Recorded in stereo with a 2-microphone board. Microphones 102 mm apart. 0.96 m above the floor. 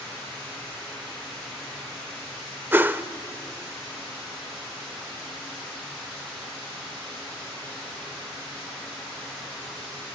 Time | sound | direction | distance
2.7 | a whoosh | 20° right (ahead or behind) | 0.8 m